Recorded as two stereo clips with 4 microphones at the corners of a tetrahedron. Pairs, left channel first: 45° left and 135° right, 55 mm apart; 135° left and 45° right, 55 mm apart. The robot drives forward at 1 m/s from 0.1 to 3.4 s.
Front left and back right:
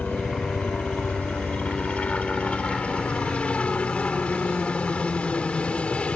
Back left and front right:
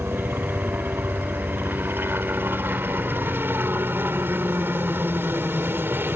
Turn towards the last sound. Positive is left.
turn(degrees=-15)